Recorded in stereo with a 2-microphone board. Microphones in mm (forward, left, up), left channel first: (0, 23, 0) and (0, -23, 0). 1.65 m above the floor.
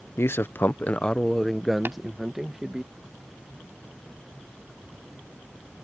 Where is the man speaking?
65° left (ahead or behind); by 2.9 s 20° right (ahead or behind).